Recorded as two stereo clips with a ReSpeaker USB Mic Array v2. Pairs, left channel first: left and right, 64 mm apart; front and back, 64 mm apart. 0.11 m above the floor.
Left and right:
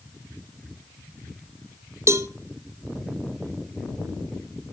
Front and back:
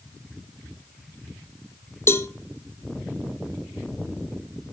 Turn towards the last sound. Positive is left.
turn(degrees=-45)